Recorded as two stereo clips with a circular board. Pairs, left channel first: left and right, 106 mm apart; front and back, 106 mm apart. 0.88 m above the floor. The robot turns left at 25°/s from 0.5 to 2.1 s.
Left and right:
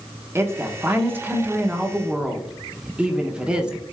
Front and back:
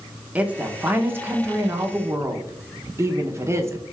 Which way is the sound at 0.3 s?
120° right.